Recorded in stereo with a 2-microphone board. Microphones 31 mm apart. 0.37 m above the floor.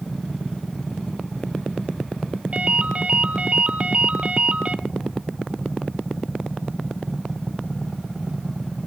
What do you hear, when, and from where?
2.5 s a ringtone: 40° right (ahead or behind), 1.1 m